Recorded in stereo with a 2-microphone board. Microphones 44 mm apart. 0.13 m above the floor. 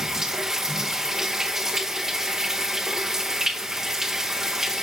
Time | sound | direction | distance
0.0 | running water | 10° right (ahead or behind) | 1.3 m